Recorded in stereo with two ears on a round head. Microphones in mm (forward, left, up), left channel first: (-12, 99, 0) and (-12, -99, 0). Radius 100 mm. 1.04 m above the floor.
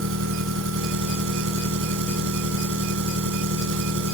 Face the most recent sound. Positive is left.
turn(degrees=-65)  # may be behind; listen again after turning